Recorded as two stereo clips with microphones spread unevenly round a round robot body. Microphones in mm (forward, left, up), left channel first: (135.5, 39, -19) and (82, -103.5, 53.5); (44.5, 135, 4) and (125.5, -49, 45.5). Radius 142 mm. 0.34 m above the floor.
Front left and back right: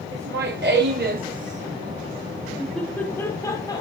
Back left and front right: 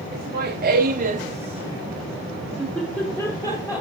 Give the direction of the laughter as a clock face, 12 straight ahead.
4 o'clock.